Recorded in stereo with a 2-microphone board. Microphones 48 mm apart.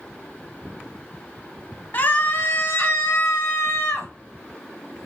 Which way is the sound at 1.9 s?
45° left (ahead or behind).